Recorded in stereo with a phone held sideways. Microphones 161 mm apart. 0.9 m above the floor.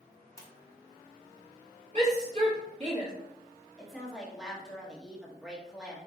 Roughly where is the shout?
Right.